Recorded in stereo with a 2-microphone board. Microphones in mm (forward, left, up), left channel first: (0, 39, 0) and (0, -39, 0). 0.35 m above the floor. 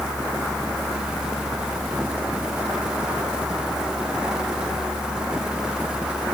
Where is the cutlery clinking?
No cutlery clinking in this recording.